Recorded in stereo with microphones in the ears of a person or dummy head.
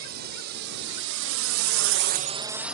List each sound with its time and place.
0.0 s a drone: 55° right (ahead or behind); by 2.8 s 5° right (ahead or behind)